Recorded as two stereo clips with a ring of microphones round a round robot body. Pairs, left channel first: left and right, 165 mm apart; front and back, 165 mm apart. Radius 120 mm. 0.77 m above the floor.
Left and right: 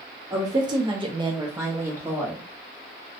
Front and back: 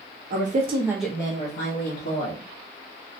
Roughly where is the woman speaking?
Behind.